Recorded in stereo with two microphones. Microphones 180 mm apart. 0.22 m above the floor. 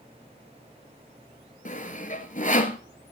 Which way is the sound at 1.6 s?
45° left (ahead or behind).